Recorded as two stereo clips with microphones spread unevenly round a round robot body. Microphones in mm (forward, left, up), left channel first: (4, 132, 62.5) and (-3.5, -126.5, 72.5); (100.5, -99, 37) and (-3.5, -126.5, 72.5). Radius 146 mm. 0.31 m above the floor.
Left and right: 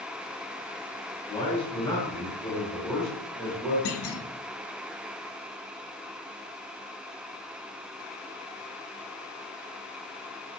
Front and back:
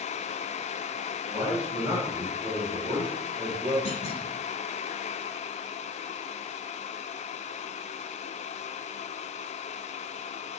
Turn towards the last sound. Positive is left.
turn(degrees=50)